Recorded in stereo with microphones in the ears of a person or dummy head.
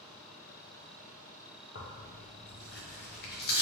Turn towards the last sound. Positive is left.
turn(degrees=50)  # may be behind; listen again after turning